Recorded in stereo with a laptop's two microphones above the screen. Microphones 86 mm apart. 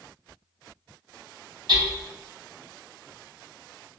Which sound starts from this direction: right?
Hammering, at 1.7 s.